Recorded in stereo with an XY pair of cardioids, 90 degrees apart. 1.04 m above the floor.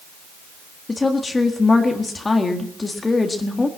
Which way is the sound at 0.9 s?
25° left.